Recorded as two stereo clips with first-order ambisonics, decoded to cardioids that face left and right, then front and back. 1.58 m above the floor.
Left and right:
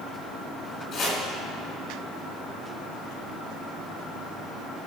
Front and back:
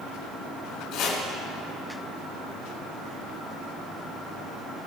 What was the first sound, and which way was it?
Chopping, 30° left.